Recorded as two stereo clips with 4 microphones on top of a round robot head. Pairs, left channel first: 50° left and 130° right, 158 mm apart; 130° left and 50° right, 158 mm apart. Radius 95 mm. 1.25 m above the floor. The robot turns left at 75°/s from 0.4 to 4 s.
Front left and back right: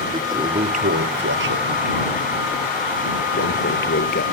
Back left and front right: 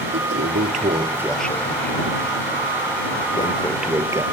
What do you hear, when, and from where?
0.1 s a toilet flushing: 65° right; by 4.2 s 25° left